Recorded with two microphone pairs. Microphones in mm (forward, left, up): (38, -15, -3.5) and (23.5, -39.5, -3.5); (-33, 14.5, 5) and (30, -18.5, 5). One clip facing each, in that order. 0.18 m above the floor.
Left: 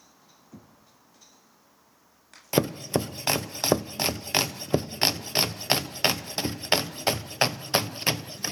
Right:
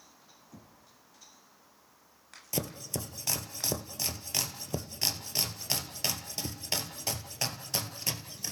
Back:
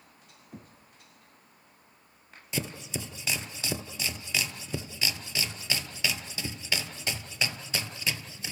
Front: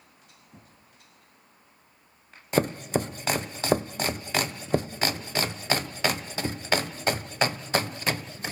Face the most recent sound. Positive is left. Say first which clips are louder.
# left 11 dB, front 11 dB
turn(degrees=10)